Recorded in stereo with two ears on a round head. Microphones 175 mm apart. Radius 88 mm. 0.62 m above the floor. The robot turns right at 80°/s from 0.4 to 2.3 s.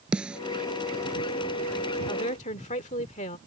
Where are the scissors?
I don't hear scissors.